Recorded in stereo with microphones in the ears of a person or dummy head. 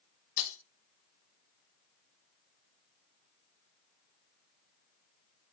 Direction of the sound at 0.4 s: 70° left (ahead or behind).